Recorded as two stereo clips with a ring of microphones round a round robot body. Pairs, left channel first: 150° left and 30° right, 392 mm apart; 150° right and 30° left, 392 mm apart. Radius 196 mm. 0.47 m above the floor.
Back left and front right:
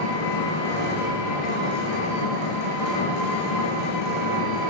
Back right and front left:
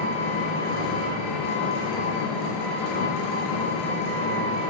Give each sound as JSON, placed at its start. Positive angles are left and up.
{"t": 0.0, "sound": "an engine running", "azimuth_deg": 175, "distance_m": 3.0}